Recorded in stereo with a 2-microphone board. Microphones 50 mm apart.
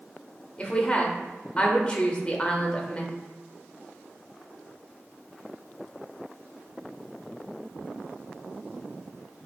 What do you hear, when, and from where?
0.6 s a woman speaking: 25° left (ahead or behind), 0.9 m